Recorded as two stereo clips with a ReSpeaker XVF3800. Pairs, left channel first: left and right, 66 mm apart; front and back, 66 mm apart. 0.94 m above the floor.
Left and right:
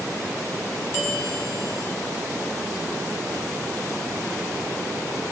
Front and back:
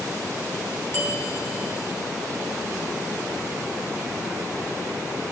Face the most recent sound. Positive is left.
turn(degrees=50)